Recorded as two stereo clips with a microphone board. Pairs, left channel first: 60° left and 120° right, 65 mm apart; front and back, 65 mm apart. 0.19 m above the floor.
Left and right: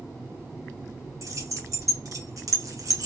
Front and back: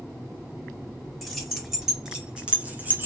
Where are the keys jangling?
90° right, 3 m; by 3.1 s 130° right, 1.9 m.